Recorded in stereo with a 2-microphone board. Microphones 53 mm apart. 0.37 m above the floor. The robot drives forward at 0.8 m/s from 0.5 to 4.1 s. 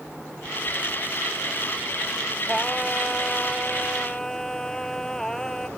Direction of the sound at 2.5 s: 10° left (ahead or behind).